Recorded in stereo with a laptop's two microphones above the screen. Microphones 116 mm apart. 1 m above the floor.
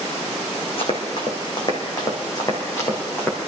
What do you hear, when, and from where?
0.8 s running footsteps: 50° left (ahead or behind), 2.5 m; by 3.4 s 20° left (ahead or behind), 2.5 m